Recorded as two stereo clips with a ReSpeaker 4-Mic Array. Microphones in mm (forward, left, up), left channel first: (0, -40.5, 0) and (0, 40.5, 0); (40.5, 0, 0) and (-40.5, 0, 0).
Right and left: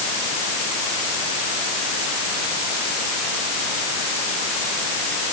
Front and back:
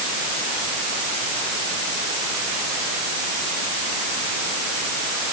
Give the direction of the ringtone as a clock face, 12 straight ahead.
I don't hear a ringtone.